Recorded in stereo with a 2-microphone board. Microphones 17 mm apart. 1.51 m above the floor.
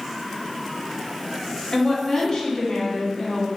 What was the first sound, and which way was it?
A woman speaking, 45° left (ahead or behind).